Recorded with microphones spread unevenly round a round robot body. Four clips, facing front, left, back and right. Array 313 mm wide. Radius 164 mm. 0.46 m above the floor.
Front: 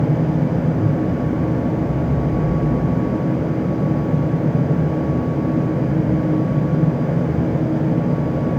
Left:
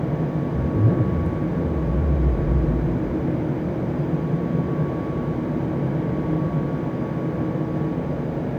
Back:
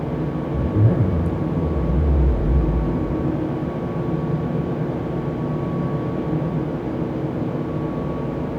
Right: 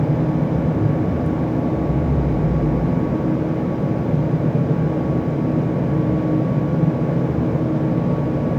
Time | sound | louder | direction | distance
0.5 | a zipper | right 2 dB, front 2 dB | 165° left | 2.5 m